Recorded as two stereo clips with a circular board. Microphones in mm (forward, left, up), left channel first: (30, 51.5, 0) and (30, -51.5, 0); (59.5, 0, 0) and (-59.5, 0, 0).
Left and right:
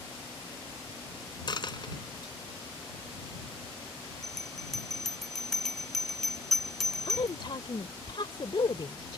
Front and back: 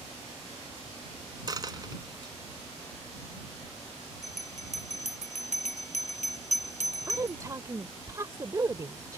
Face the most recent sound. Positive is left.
turn(degrees=120)